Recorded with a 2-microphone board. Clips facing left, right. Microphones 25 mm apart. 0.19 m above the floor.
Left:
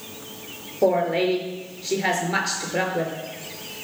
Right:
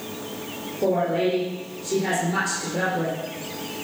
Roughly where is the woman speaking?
Left.